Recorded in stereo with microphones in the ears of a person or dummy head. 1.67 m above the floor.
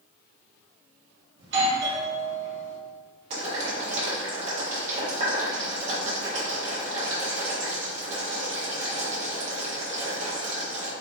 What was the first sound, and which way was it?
A doorbell, 75° right (ahead or behind).